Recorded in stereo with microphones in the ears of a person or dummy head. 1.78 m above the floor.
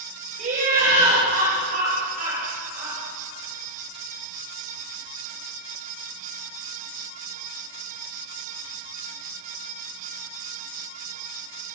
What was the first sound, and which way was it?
Laughter, 45° right (ahead or behind).